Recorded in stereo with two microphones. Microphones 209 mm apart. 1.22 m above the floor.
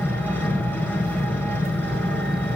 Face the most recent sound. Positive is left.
turn(degrees=10)  # may be behind; listen again after turning